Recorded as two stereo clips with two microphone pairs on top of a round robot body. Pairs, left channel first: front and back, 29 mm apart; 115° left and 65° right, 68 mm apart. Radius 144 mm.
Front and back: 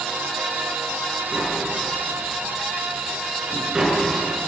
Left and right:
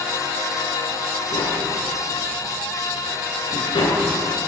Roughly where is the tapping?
Left.